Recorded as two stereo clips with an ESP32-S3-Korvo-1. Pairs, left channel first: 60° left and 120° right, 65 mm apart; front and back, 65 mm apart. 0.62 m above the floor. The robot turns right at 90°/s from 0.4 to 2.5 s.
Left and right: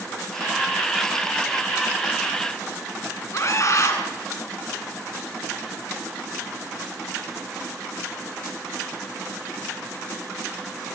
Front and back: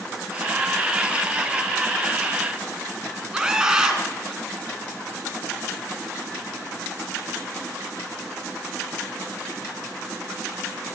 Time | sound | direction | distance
3.3 | a scream | 100° left | 5.5 m